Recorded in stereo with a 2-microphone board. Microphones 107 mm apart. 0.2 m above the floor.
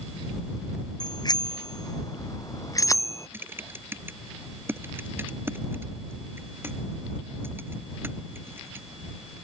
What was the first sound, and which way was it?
A bicycle bell, 40° left (ahead or behind).